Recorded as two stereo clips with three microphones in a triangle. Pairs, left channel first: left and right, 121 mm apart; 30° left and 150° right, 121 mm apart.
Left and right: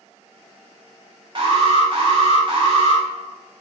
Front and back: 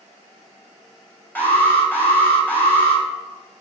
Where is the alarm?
45° right, 3 m.